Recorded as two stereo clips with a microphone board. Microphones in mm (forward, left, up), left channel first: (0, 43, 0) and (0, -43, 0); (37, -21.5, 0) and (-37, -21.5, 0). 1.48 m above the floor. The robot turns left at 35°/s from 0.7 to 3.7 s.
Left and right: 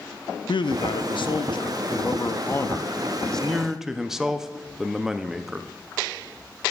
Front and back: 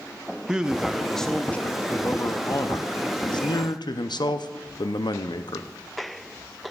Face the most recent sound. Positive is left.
turn(degrees=-5)